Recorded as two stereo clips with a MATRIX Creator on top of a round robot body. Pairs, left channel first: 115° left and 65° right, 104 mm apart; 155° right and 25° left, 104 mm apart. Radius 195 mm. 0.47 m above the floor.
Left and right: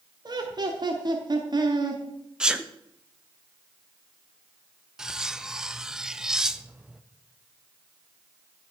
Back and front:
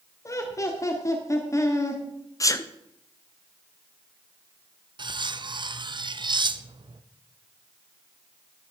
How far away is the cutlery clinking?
About 0.7 m.